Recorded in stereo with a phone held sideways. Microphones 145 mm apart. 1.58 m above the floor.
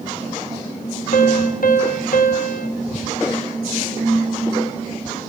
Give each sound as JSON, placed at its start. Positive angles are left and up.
{"t": 1.1, "sound": "a piano", "side_deg": 70, "distance_m": 0.7}